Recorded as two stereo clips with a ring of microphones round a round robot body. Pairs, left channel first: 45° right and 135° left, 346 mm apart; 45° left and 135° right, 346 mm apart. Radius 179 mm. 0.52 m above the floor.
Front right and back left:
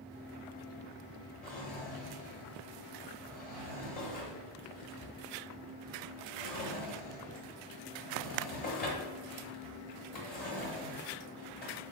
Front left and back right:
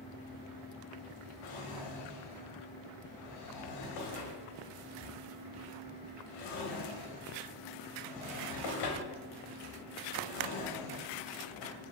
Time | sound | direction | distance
1.4 | a drawer | 20° left | 1.0 m